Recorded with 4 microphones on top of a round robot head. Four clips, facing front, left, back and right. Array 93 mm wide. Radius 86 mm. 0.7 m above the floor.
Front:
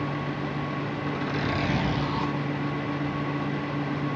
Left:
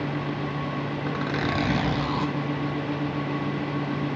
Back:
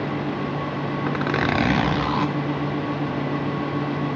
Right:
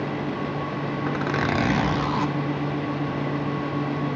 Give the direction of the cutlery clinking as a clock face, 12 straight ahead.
No cutlery clinking in this recording.